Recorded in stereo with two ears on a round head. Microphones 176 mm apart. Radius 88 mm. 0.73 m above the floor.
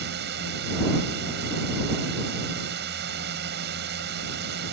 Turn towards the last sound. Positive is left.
turn(degrees=-55)  # may be behind; listen again after turning